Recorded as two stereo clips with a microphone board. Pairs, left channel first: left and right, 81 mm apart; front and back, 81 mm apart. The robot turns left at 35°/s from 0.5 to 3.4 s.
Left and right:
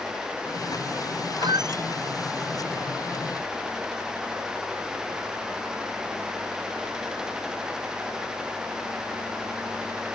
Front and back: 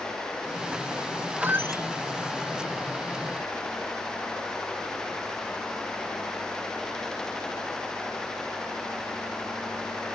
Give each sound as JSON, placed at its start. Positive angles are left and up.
{"t": 1.4, "sound": "a squeak", "azimuth_deg": -115}